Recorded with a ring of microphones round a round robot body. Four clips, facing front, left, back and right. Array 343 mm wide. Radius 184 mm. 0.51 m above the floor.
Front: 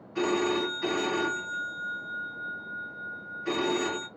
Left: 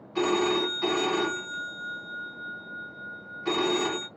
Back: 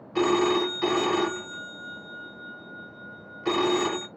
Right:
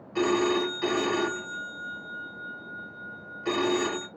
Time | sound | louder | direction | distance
0.1 | a phone ringing | right 1 dB, back 4 dB | 175° right | 1.0 m